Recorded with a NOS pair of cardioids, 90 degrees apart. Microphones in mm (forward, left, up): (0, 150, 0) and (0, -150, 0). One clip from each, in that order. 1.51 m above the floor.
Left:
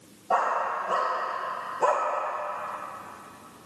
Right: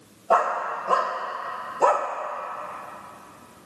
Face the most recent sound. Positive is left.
turn(degrees=-35)